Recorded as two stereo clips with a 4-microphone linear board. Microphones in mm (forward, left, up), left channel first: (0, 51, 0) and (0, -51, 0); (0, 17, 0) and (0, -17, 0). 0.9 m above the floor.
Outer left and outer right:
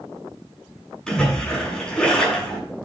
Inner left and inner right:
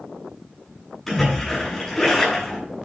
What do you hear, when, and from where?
1.1 s a splash: 5° left (ahead or behind), 7.5 m